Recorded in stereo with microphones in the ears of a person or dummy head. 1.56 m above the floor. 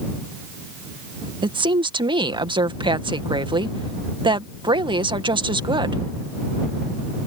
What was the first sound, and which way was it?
A woman speaking, 20° right (ahead or behind).